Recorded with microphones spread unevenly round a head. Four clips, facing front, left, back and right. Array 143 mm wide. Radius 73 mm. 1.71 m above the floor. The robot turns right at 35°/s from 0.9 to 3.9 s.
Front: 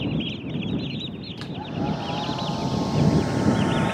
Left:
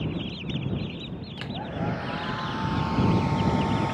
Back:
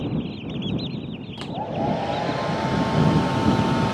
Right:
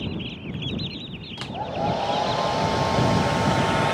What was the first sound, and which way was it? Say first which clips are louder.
A hair dryer: right 6 dB, back 4 dB; 170° right.